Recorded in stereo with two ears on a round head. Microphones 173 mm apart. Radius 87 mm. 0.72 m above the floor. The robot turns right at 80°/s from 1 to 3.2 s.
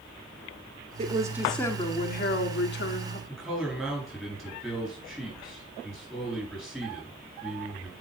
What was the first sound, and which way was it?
A woman speaking, 35° right.